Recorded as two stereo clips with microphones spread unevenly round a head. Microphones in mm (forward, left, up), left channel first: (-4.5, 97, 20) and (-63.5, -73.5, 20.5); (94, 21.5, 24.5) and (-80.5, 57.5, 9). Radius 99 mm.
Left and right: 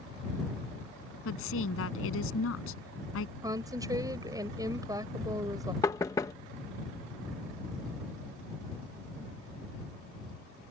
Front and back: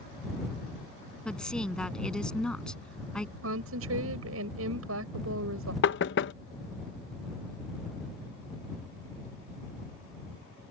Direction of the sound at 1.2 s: 75° left.